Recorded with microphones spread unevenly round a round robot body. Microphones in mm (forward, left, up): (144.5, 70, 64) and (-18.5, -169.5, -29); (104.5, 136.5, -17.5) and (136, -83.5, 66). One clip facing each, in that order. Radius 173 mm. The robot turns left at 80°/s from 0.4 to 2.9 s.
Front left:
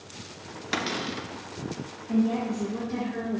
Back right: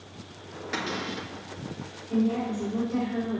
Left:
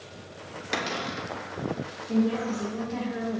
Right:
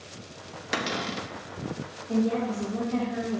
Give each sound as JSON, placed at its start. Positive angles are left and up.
{"t": 0.7, "sound": "a cupboard door", "azimuth_deg": 15, "distance_m": 0.8}
{"t": 2.1, "sound": "a woman speaking", "azimuth_deg": 20, "distance_m": 1.8}